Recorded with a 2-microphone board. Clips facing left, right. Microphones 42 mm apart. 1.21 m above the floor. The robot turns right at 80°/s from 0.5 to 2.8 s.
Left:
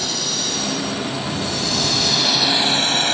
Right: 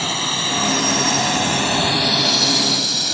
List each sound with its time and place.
0.0 s a drone: 40° right (ahead or behind); by 3.2 s 40° left (ahead or behind)